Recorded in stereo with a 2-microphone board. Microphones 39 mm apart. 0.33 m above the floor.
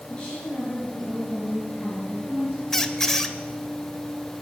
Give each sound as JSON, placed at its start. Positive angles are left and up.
{"t": 0.1, "sound": "a woman speaking", "side_deg": 25, "distance_m": 5.0}
{"t": 2.7, "sound": "a squeak", "side_deg": 10, "distance_m": 0.7}